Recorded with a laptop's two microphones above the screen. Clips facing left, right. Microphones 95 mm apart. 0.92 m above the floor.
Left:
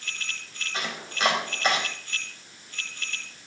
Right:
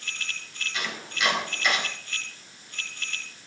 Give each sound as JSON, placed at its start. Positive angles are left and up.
{"t": 0.7, "sound": "chopping", "side_deg": 40, "distance_m": 3.5}